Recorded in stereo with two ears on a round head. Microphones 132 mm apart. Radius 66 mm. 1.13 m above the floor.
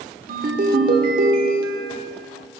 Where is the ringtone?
60° right (ahead or behind), 1.3 m.